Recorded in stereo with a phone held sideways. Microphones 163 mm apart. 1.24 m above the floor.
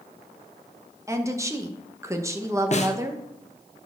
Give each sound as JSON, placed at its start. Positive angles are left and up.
{"t": 1.1, "sound": "a woman speaking", "side_deg": -20, "distance_m": 1.0}
{"t": 2.7, "sound": "a snare drum", "side_deg": 45, "distance_m": 0.9}